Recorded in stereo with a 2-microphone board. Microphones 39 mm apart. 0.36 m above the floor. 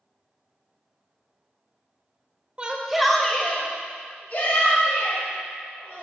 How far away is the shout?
About 1.1 m.